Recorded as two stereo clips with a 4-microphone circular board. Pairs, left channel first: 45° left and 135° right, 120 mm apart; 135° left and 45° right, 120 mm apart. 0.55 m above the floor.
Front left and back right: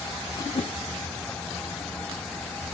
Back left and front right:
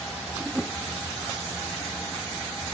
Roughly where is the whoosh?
Ahead left.